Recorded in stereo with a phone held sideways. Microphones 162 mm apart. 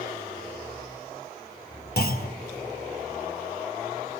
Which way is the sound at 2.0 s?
75° left (ahead or behind).